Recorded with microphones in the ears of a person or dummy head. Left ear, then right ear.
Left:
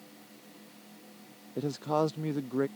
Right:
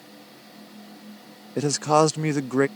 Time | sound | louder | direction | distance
1.6 | a man speaking | right 10 dB | 65° right (ahead or behind) | ?